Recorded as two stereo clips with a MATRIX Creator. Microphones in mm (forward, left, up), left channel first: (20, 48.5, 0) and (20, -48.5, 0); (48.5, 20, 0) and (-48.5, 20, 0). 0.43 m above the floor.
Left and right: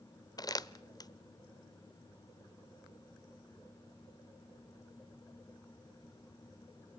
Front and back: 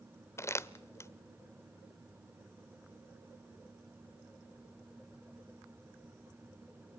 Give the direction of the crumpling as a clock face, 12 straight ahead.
10 o'clock.